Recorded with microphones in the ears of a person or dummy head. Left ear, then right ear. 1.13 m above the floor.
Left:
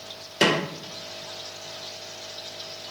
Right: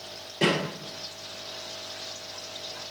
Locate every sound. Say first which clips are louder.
0.4 s a snare drum: left 4 dB; 70° left (ahead or behind), 1.5 m